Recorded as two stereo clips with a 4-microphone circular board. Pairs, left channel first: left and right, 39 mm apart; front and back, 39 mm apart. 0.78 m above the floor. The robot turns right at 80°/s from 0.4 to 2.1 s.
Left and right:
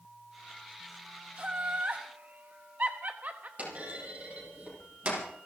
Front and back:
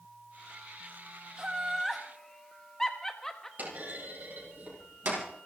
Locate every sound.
1.4 s laughter: 135° right, 1.0 m; by 3.5 s 75° right, 1.0 m
3.6 s a clunk: 140° right, 6 m